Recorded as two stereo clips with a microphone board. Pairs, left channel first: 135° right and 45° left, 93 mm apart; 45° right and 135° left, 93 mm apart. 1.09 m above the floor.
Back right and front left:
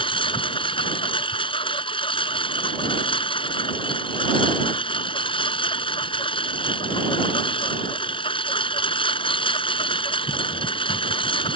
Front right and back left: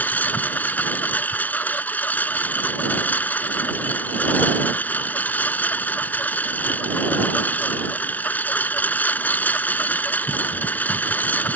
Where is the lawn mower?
115° right.